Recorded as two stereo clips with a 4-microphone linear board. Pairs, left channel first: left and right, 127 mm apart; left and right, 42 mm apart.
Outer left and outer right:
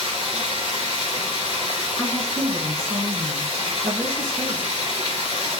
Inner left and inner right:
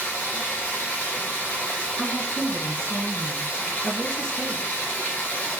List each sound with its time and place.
0.0 s running water: 40° left (ahead or behind), 3 m
2.0 s a woman speaking: 25° left (ahead or behind), 2 m